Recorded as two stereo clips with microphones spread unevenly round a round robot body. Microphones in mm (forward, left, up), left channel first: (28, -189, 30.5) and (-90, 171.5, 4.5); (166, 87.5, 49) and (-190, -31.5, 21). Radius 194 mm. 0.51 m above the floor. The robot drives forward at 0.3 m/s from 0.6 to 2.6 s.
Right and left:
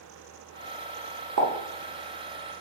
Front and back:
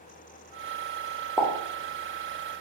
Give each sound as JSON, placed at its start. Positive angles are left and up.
{"t": 1.4, "sound": "a pop", "azimuth_deg": 115, "distance_m": 1.0}